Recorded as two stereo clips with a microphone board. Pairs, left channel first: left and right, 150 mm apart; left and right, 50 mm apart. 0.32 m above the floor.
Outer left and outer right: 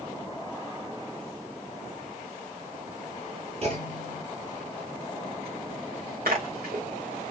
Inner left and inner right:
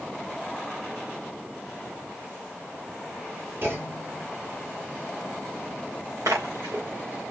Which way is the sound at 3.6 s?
45° right (ahead or behind).